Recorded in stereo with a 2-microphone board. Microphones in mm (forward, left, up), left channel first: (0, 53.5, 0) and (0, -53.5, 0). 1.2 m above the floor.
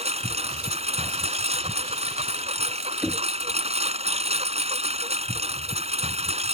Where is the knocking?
5° right (ahead or behind).